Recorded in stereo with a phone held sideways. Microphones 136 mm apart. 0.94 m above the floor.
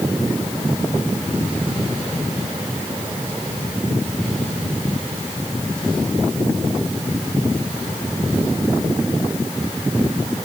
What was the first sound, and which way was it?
Only background noise.